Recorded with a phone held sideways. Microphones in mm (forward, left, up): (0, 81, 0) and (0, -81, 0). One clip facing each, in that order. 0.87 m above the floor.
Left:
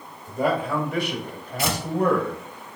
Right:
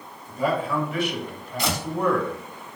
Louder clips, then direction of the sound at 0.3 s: Left 1 dB; 45° left (ahead or behind).